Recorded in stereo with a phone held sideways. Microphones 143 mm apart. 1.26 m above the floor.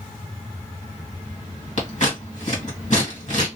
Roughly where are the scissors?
Left.